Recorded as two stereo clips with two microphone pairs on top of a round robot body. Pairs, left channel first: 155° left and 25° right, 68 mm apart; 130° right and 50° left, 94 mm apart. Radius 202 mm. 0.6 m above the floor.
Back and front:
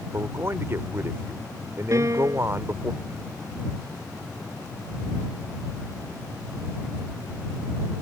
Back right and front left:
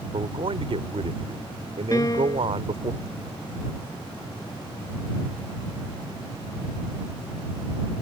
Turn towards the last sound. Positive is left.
turn(degrees=-75)